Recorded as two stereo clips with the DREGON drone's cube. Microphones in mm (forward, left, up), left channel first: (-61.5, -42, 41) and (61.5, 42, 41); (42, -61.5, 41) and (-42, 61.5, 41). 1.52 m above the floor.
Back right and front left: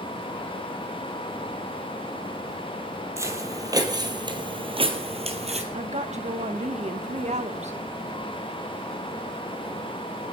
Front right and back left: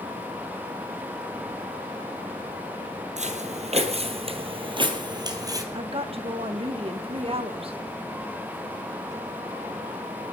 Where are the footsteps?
105° left, 2.5 m; by 5.6 s 65° left, 2.5 m.